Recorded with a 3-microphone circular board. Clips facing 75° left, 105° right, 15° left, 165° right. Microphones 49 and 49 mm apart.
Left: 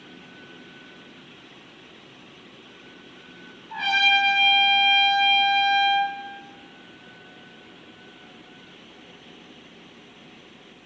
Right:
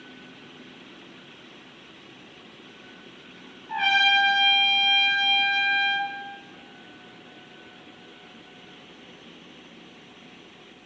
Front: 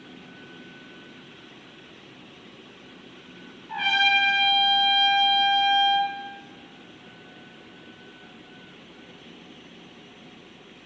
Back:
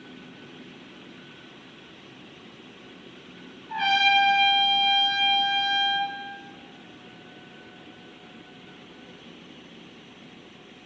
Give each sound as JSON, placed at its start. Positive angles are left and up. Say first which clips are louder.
{"t": 3.7, "sound": "a trumpet", "louder": "even, even", "azimuth_deg": -60, "distance_m": 2.5}